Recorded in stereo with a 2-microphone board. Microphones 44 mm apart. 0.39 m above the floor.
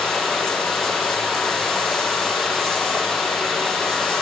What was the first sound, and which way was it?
Running water, 10° right (ahead or behind).